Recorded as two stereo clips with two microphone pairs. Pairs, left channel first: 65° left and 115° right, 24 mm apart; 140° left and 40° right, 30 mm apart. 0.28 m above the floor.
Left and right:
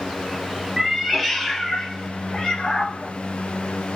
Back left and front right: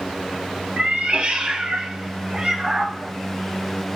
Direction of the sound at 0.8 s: 50° right.